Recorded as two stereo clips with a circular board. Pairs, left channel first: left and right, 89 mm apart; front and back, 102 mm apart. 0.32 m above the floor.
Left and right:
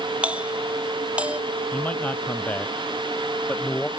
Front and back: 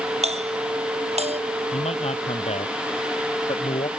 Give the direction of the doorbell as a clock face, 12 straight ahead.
6 o'clock.